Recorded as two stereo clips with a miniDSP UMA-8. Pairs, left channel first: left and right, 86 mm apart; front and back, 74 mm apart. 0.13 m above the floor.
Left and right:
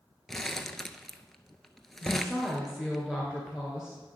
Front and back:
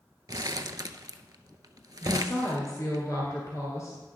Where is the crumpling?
175° left, 0.5 m.